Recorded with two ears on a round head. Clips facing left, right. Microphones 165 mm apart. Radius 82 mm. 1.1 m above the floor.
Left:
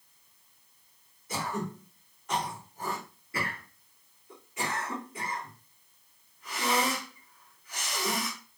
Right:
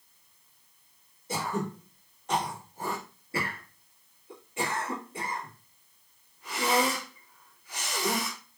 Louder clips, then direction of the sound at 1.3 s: Right 2 dB; 25° right (ahead or behind).